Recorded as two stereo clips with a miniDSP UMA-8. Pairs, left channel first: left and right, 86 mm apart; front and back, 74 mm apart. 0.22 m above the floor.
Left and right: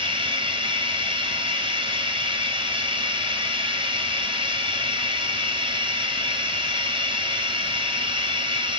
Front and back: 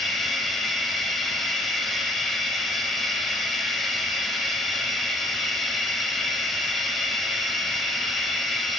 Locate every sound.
0.0 s running water: 90° right, 0.7 m